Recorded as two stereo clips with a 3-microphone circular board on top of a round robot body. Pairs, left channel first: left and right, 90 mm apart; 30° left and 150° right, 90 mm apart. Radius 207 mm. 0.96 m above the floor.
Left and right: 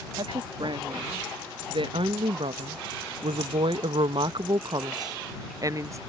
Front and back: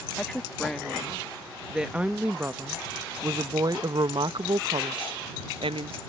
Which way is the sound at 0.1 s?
50° right.